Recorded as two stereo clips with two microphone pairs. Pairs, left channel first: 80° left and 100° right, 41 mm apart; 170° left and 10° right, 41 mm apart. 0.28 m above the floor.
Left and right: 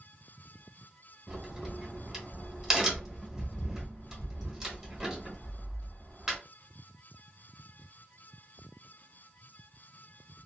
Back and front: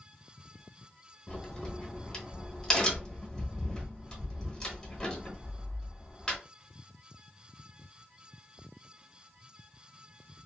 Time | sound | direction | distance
1.3 | a crack | 165° right | 1.0 m